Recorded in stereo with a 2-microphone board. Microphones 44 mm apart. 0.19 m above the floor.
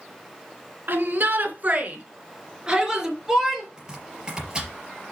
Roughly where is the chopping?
Right.